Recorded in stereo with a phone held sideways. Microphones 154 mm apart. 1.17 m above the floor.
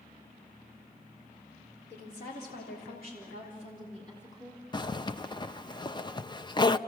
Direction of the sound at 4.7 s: 25° left (ahead or behind).